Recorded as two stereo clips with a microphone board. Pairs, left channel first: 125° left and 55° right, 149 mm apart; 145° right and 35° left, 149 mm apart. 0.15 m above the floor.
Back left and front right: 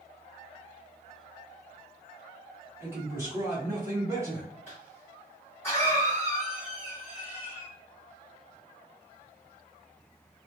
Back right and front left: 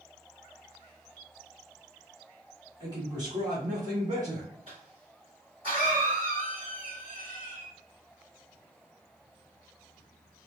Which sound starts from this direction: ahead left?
A cough, at 4.7 s.